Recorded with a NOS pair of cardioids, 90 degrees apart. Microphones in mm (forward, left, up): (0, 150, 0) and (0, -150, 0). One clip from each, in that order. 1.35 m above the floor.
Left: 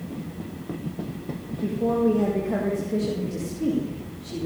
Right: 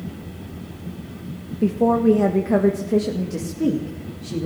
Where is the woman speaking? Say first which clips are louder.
Right 5 dB; 65° right, 1.3 m; by 4.5 s 40° right, 3 m.